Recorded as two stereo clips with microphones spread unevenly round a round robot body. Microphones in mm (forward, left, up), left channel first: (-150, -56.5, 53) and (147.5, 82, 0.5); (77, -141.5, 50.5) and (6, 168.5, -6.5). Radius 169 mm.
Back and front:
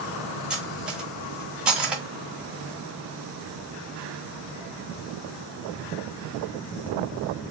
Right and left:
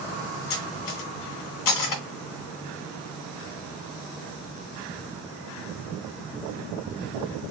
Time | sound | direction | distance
0.5 | cutlery clinking | 55° right | 1.3 m